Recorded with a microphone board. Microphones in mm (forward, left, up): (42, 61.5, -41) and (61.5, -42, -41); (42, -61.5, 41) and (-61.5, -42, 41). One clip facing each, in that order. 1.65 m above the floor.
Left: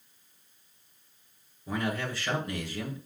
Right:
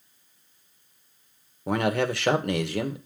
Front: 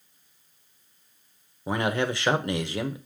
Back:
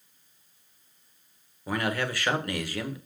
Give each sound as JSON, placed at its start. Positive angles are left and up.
{"t": 1.7, "sound": "a man speaking", "azimuth_deg": -75, "distance_m": 1.3}